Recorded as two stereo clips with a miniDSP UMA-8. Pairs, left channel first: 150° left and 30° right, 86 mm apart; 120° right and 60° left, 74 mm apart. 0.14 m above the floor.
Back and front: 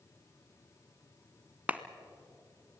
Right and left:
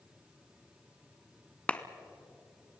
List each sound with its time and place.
1.7 s a clap: 70° right, 1.0 m